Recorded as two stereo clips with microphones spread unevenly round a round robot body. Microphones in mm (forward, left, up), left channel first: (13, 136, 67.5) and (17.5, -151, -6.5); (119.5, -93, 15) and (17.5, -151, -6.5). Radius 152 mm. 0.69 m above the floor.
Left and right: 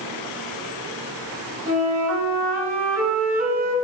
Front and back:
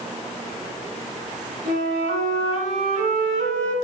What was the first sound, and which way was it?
A flute, 170° right.